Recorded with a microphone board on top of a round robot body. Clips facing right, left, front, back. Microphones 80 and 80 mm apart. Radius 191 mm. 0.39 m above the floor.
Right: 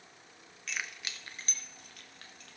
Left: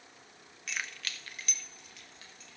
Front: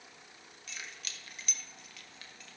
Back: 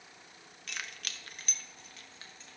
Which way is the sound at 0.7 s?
175° left.